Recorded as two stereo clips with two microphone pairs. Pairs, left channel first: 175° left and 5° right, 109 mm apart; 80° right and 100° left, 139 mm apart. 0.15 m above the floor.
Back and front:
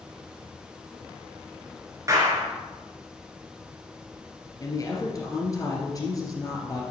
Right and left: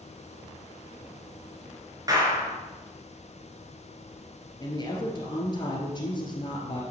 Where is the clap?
45° left, 2 m.